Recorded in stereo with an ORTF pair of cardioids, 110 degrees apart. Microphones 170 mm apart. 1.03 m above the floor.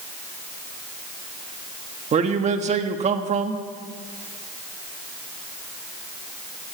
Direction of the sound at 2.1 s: 45° right.